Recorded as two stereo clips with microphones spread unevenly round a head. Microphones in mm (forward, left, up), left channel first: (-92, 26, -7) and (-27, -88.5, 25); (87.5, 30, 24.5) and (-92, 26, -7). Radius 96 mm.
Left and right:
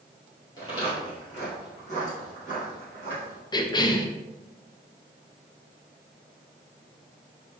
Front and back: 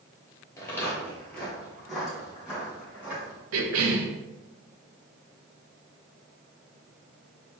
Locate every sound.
0.6 s footsteps: 50° left, 1.8 m; by 3.4 s 95° left, 2.5 m
3.5 s a cough: straight behind, 0.8 m